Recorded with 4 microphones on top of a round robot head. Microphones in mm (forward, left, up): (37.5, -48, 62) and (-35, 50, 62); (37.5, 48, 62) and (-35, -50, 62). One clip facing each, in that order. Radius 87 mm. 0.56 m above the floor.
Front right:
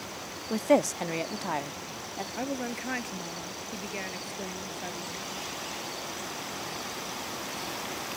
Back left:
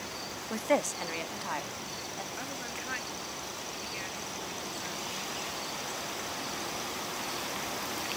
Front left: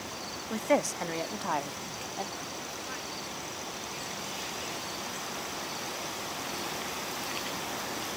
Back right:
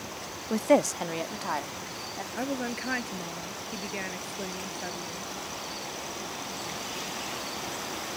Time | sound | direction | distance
0.5 | a woman speaking | 105° right | ?
2.4 | a woman speaking | 100° right | ?